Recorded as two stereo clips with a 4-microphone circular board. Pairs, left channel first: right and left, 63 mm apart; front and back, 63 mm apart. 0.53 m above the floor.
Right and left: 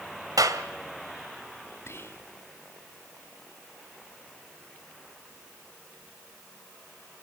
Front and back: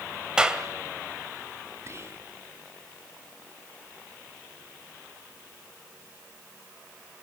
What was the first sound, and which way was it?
A clap, 105° left.